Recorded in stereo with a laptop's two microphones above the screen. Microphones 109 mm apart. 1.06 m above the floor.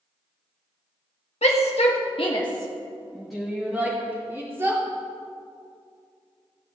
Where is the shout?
80° left, 1.6 m; by 4.8 s 25° right (ahead or behind), 3 m.